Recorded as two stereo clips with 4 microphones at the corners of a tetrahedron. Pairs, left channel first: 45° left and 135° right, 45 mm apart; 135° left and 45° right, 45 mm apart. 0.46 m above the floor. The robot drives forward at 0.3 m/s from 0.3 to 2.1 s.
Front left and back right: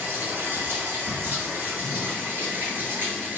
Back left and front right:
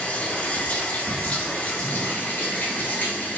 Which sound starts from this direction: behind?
Running water, at 0.0 s.